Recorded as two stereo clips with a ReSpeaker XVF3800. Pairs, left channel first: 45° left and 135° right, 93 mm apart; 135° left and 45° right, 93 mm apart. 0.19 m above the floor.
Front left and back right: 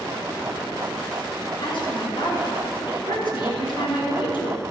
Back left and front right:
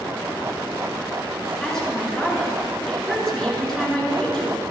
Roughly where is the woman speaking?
Ahead left.